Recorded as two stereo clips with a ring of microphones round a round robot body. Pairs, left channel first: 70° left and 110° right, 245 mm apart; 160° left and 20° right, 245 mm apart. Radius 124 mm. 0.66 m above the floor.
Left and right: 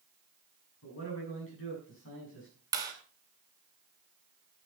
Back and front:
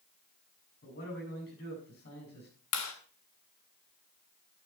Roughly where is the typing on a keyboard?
I don't hear typing on a keyboard.